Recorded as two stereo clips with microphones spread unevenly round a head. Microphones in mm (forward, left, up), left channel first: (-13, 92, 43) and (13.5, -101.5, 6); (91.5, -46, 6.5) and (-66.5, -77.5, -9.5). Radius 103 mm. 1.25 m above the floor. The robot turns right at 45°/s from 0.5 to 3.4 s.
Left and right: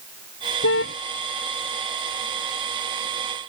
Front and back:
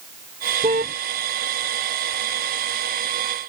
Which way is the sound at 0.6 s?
125° left.